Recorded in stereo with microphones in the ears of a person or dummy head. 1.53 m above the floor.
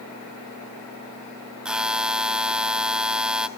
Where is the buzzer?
5° right (ahead or behind), 0.6 m.